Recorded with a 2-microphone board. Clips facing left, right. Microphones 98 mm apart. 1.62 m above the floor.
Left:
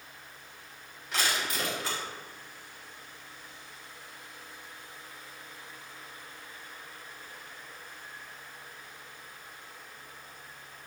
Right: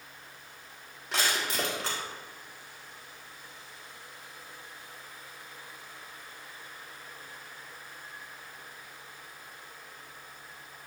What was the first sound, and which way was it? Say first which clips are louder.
Crushing: right 1 dB; 80° right.